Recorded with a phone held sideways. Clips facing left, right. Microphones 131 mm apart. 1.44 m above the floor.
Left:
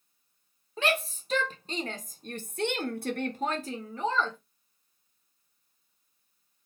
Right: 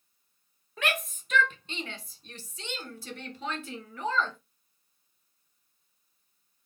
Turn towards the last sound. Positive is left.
turn(degrees=20)  # may be behind; listen again after turning